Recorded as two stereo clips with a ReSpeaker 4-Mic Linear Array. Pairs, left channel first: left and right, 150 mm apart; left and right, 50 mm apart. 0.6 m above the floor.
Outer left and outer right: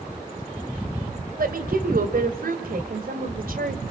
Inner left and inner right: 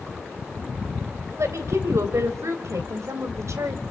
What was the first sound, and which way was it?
A woman speaking, 75° right (ahead or behind).